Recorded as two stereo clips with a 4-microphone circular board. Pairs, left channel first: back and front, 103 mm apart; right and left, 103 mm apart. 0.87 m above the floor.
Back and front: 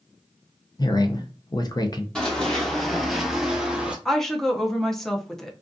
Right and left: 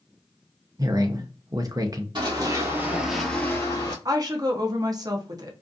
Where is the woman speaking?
95° left, 0.5 m.